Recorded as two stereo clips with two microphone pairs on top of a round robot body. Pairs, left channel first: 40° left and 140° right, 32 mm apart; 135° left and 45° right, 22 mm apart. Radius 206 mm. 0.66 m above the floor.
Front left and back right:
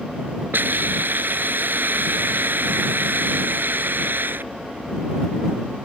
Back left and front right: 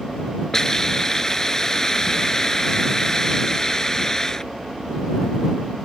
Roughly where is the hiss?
Behind right.